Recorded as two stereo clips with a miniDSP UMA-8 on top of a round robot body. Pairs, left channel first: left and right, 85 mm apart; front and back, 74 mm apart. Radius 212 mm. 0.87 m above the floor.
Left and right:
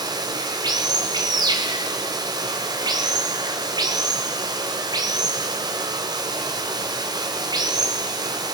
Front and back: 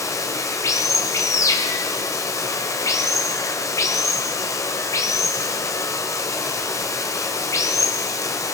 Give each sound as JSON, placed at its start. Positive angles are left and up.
{"t": 0.0, "sound": "running water", "azimuth_deg": -50, "distance_m": 1.5}